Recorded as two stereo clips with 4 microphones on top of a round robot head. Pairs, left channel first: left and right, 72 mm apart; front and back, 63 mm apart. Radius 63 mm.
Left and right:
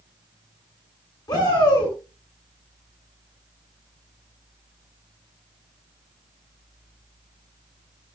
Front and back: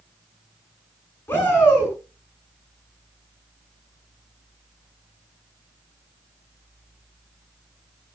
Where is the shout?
60° left, 9 m.